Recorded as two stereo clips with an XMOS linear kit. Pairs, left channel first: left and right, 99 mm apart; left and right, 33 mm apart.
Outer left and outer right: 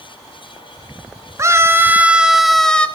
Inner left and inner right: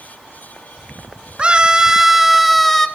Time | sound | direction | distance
1.4 | a scream | 30° right (ahead or behind) | 1.9 m